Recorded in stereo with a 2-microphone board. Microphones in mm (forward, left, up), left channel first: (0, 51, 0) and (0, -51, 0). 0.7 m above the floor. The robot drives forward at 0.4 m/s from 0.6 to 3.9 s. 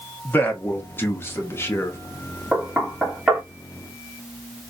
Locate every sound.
0.2 s a man speaking: 20° left (ahead or behind), 0.9 m; by 2.0 s 25° left (ahead or behind), 0.7 m
2.5 s knocking: 5° right (ahead or behind), 1.1 m